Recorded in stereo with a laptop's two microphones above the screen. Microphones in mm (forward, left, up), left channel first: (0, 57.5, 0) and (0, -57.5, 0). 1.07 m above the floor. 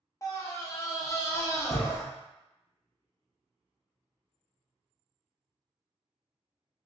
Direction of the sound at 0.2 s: 30° left (ahead or behind).